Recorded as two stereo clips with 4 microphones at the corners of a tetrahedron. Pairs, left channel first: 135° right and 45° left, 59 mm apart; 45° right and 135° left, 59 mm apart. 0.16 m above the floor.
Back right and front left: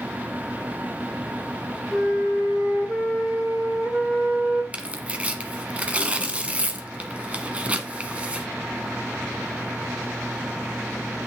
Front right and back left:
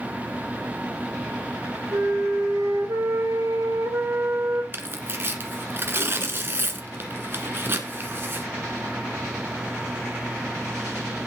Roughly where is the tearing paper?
Left.